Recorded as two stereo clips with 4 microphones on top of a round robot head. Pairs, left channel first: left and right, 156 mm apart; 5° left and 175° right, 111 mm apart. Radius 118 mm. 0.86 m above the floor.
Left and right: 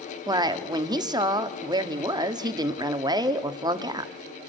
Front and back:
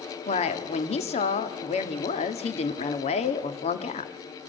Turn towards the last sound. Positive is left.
turn(degrees=-25)